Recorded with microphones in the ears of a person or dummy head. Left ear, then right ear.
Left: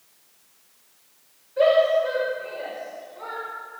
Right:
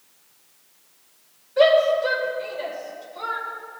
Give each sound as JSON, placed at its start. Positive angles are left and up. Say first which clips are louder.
{"t": 1.6, "sound": "a shout", "louder": "right 1 dB", "side_deg": -45, "distance_m": 6.0}